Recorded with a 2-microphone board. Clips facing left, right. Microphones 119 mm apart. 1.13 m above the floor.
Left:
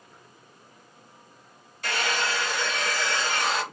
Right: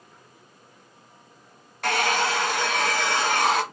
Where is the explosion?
I don't hear an explosion.